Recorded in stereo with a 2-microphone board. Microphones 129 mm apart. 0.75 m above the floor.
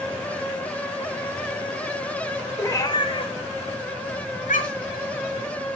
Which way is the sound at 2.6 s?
20° left (ahead or behind).